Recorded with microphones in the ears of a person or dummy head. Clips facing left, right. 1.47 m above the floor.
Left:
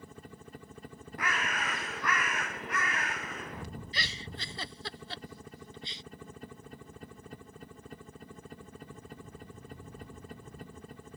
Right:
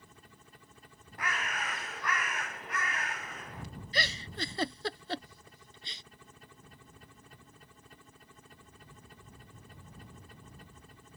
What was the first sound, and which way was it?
A helicopter, 50° left (ahead or behind).